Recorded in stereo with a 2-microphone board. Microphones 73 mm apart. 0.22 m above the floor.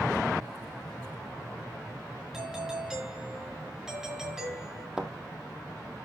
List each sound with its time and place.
2.3 s a doorbell: 5° right (ahead or behind), 4.5 m
5.0 s a thud: 10° right (ahead or behind), 1.3 m